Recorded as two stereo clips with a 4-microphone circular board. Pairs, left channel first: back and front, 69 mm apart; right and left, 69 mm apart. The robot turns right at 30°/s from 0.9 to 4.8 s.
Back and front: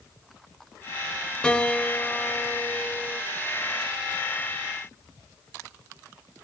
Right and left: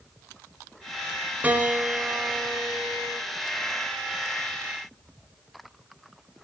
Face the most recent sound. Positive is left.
turn(degrees=-140)